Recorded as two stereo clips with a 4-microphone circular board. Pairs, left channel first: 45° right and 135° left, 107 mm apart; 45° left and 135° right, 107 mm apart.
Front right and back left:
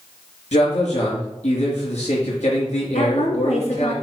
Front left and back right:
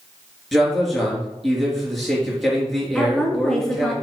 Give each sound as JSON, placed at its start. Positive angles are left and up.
{"t": 0.5, "sound": "a man speaking", "azimuth_deg": -45, "distance_m": 4.5}
{"t": 3.0, "sound": "a woman speaking", "azimuth_deg": -40, "distance_m": 3.0}